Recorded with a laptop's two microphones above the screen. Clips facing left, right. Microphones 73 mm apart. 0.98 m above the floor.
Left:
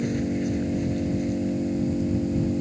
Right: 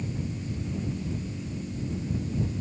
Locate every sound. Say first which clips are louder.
0.0 s an engine running: left 10 dB; 90° left